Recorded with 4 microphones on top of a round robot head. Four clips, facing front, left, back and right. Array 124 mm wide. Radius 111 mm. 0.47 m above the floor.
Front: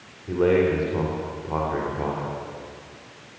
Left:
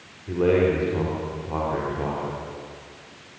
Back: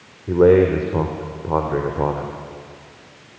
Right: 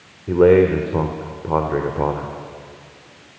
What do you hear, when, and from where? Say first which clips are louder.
0.3 s a man speaking: right 7 dB, back 7 dB; 130° right, 2 m